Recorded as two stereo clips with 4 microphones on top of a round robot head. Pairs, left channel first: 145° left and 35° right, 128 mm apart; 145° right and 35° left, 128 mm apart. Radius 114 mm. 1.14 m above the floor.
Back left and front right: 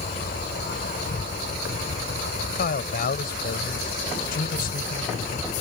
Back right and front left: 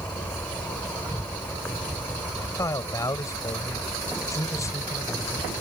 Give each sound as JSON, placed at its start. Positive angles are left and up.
{"t": 0.0, "sound": "an insect", "azimuth_deg": 135}
{"t": 2.5, "sound": "a man speaking", "azimuth_deg": 145}